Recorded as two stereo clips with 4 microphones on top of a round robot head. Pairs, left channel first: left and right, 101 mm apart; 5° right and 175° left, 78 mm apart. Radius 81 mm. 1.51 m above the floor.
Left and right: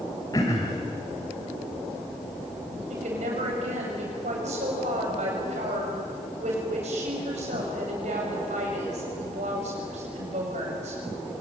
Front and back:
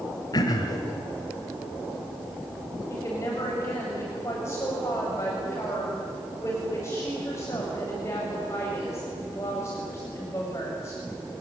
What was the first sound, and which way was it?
Throat clearing, 25° left.